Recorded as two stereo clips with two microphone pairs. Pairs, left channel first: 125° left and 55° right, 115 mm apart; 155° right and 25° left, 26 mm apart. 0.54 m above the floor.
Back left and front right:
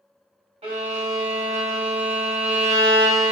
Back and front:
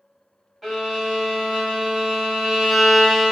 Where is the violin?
75° right, 0.9 m.